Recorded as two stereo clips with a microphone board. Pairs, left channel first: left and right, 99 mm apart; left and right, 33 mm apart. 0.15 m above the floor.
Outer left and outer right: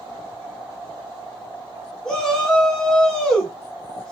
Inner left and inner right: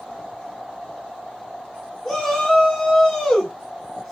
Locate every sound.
2.0 s a shout: 5° left (ahead or behind), 1.2 m